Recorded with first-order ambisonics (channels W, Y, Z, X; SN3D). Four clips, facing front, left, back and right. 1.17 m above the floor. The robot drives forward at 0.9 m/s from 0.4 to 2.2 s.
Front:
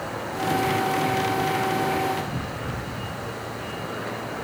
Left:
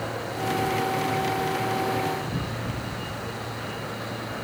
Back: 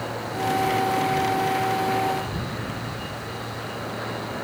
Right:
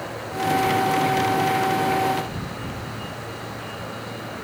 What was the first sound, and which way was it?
Only background noise.